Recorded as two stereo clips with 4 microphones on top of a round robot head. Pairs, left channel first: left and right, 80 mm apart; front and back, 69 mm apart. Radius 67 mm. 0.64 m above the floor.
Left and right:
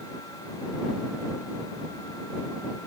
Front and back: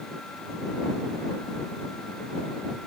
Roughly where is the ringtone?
No ringtone in this recording.